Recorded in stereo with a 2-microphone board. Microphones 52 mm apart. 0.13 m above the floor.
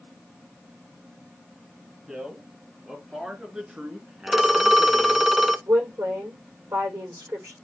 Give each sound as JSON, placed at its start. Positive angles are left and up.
{"t": 2.1, "sound": "a man speaking", "side_deg": -15, "distance_m": 3.0}
{"t": 4.3, "sound": "a phone ringing", "side_deg": -5, "distance_m": 0.7}
{"t": 5.7, "sound": "a woman speaking", "side_deg": -65, "distance_m": 8.0}